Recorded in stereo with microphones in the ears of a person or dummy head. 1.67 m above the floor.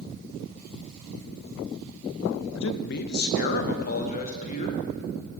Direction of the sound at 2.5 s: 70° left (ahead or behind).